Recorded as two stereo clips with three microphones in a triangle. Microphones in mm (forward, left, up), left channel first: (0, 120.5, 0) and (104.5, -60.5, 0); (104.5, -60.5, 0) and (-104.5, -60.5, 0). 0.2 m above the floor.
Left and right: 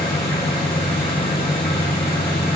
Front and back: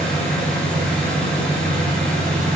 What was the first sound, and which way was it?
An engine running, 85° left.